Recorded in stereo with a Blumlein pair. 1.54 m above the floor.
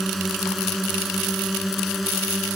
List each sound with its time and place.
0.0 s a drone: 5° right; by 2.6 s straight ahead